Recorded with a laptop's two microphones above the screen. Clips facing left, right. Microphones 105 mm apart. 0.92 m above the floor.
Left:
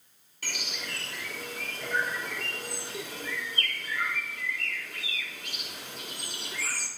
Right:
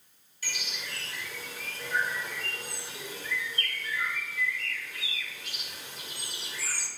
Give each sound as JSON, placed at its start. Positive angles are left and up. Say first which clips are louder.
{"t": 0.4, "sound": "a bird", "louder": "left 2 dB", "side_deg": 55, "distance_m": 2.5}